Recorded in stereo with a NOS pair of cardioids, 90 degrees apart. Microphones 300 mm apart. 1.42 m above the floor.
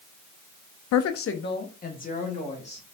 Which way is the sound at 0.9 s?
70° left.